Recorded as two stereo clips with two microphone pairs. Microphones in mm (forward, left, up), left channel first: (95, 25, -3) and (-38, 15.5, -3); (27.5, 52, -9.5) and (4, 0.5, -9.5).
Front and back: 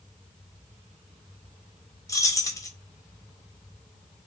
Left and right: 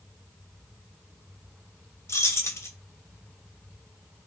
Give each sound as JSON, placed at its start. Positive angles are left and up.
{"t": 2.1, "sound": "keys jangling", "azimuth_deg": 60, "distance_m": 0.5}